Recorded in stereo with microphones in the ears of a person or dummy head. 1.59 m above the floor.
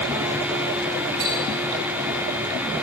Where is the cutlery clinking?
40° right (ahead or behind), 3.5 m.